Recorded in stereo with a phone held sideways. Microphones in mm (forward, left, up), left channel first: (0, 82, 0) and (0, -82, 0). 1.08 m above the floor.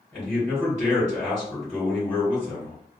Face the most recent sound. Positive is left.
turn(degrees=10)  # may be behind; listen again after turning